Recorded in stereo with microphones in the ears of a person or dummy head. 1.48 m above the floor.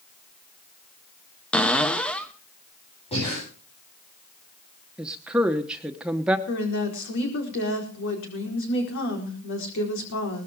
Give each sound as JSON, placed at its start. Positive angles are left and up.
{"t": 1.5, "sound": "a cupboard door", "side_deg": 5, "distance_m": 1.1}
{"t": 3.1, "sound": "breathing", "side_deg": 30, "distance_m": 9.5}
{"t": 5.0, "sound": "a woman speaking", "side_deg": -5, "distance_m": 1.0}
{"t": 6.5, "sound": "a woman speaking", "side_deg": 65, "distance_m": 4.5}